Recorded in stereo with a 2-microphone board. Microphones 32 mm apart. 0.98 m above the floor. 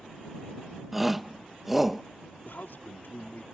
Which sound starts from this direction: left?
A man speaking, at 2.5 s.